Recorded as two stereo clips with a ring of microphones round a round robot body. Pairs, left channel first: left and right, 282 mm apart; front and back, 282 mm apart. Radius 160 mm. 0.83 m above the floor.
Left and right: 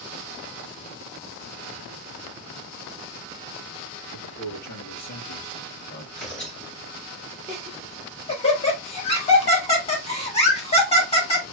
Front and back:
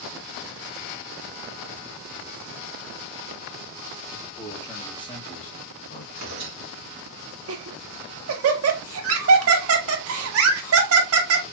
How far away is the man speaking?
About 2 m.